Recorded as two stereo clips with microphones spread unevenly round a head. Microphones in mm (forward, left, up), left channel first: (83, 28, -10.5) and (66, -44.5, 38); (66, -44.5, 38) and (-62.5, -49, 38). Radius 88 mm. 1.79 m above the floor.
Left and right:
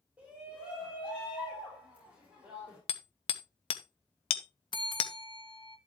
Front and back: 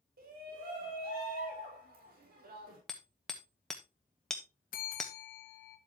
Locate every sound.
0.2 s a shout: 175° left, 5 m
2.9 s hammering: 90° left, 1.1 m
4.7 s a bell: 45° left, 1.9 m